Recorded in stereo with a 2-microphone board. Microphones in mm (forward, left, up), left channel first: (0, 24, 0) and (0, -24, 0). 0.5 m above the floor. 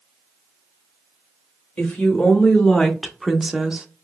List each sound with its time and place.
1.8 s a woman speaking: 25° left (ahead or behind), 1.5 m; by 3.9 s 25° right (ahead or behind), 0.7 m